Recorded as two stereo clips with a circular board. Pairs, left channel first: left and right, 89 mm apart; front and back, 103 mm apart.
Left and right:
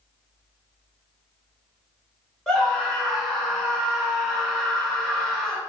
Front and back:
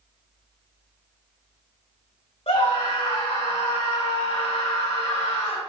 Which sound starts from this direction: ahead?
A scream, at 2.5 s.